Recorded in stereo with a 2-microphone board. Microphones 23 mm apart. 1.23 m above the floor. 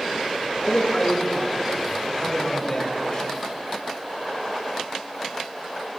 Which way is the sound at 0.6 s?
40° left (ahead or behind).